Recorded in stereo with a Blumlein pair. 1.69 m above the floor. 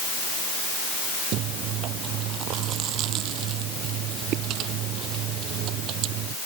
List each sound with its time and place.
1.3 s chewing: 35° right